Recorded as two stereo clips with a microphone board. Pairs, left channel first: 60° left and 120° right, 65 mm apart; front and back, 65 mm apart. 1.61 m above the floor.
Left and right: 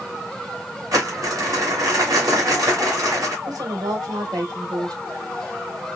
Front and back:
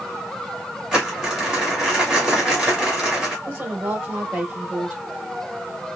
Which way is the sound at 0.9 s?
100° right.